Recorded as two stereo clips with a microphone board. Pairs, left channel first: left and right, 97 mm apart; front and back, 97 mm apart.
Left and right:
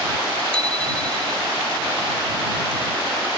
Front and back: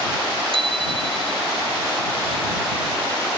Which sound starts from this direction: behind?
A bicycle bell, at 0.5 s.